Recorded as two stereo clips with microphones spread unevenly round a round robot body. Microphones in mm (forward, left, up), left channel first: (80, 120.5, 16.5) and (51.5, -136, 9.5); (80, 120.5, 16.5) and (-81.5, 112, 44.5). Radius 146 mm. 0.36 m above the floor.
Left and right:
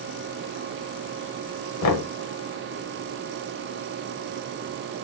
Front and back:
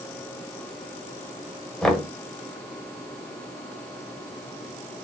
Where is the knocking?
85° left, 1.2 m.